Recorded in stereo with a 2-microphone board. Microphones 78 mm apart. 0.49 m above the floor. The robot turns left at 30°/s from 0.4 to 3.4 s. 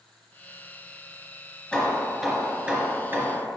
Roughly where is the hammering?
Ahead.